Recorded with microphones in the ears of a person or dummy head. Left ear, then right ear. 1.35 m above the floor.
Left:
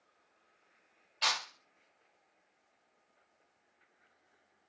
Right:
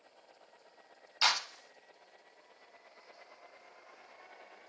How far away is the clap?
About 0.9 m.